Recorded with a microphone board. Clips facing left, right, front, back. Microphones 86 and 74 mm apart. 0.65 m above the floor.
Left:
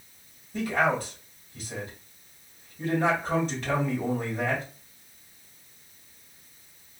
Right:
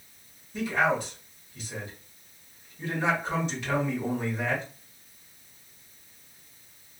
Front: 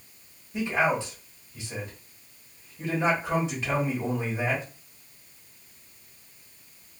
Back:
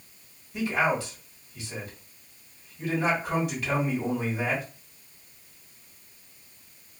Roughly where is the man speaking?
Ahead left.